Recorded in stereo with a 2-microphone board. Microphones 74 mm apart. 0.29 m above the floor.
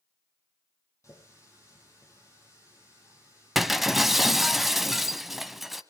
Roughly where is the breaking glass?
Centre.